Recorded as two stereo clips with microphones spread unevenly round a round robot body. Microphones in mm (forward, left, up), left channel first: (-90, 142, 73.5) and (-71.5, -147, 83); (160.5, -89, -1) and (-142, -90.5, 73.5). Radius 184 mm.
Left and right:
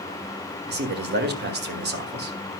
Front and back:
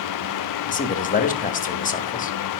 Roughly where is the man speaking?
Ahead right.